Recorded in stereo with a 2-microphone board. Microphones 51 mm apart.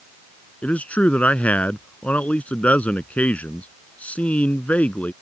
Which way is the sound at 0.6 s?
30° left (ahead or behind).